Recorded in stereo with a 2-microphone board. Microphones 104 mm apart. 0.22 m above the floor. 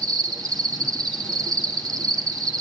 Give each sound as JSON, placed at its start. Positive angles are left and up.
{"t": 0.0, "sound": "an insect", "side_deg": -35, "distance_m": 2.0}